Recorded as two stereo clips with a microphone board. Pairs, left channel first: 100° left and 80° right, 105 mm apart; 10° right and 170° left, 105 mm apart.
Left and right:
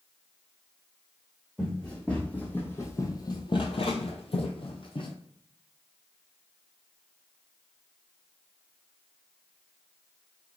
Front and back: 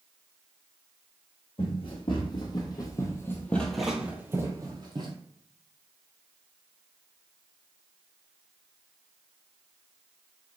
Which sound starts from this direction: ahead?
Running footsteps, at 1.6 s.